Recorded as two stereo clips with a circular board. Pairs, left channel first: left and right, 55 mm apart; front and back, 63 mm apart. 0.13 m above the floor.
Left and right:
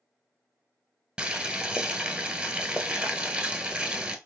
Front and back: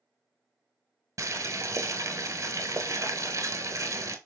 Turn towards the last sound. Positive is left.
turn(degrees=-160)